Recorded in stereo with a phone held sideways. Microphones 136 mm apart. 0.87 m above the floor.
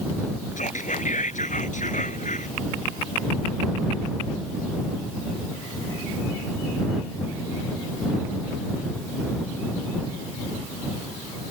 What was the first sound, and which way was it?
Whispering, 70° left (ahead or behind).